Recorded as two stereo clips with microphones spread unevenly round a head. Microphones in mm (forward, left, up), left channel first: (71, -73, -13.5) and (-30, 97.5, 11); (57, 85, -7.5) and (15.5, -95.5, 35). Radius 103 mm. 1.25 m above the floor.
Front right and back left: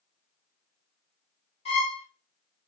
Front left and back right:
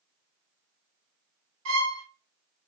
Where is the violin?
125° right, 1.4 m.